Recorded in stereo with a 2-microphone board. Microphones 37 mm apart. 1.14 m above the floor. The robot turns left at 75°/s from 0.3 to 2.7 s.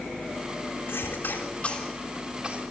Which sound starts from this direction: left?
A cough, at 0.9 s.